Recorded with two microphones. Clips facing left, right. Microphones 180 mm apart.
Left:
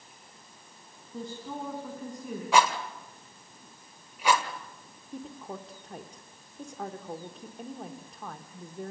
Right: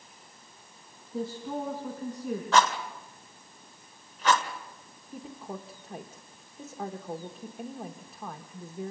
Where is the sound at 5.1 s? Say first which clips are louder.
Even; 5° right (ahead or behind), 1.0 m.